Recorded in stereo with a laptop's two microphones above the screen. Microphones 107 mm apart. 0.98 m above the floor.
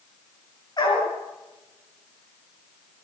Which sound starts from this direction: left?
A dog barking, at 0.8 s.